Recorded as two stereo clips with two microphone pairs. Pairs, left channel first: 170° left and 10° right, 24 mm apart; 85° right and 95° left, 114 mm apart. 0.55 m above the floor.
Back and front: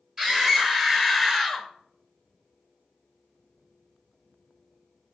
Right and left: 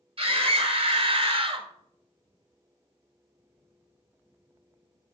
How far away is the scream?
About 3 m.